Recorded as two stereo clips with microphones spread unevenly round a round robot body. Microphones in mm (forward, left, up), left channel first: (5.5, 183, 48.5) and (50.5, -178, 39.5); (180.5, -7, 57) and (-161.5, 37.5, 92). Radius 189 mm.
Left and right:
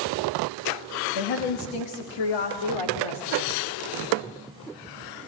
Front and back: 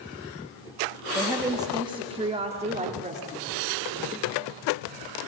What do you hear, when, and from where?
1.1 s a woman speaking: 85° left, 1.6 m; by 3.6 s 105° left, 3.5 m